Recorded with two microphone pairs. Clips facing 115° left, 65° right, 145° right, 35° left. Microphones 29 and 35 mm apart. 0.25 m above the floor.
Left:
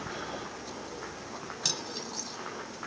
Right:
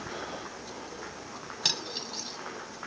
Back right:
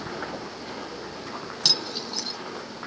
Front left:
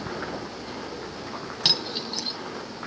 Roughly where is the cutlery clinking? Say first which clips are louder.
Right 4 dB, front left 1 dB; ahead.